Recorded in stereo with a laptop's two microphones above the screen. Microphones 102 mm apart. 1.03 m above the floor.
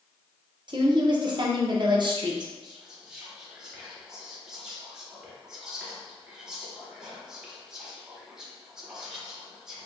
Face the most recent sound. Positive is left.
turn(degrees=-5)  # may be behind; listen again after turning